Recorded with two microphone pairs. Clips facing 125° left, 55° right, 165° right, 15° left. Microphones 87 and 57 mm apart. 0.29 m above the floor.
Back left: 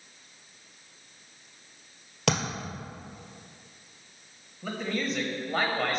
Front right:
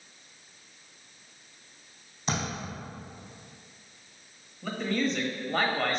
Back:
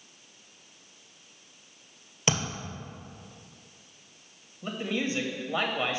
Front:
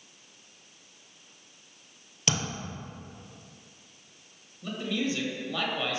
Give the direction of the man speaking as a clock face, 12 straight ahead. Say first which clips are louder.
Front right 2 dB, even; 5 o'clock.